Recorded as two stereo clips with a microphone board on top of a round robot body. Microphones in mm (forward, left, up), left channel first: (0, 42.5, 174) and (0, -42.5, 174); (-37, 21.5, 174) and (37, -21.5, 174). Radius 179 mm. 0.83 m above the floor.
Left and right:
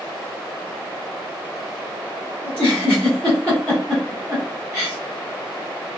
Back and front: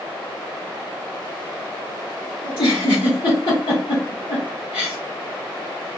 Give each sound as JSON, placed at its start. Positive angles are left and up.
{"t": 2.4, "sound": "a giggle", "azimuth_deg": 170, "distance_m": 0.6}